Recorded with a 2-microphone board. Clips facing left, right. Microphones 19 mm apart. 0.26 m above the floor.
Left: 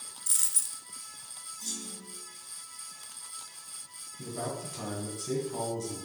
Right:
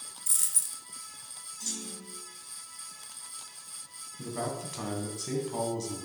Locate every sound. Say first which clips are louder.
0.3 s a dropped coin: even; 20° left (ahead or behind), 0.6 m
1.6 s a clunk: right 2 dB; 40° right (ahead or behind), 3.5 m
4.2 s a man speaking: right 2 dB; 35° right (ahead or behind), 1.8 m